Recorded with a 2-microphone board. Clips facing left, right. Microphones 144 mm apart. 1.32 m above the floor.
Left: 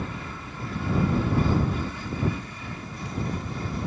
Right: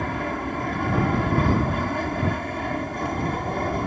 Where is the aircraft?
70° right (ahead or behind).